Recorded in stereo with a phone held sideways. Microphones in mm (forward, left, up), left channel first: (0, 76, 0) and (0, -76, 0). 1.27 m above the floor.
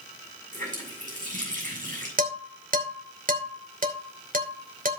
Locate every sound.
0.5 s a running tap: 60° right (ahead or behind), 7.5 m
2.2 s dishes clattering: 65° right (ahead or behind), 3 m